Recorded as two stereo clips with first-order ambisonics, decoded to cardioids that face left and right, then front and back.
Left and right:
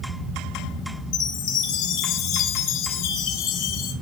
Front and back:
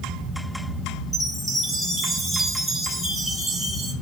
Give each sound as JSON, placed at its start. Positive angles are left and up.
{"t": 1.1, "sound": "a chime", "azimuth_deg": 90, "distance_m": 2.0}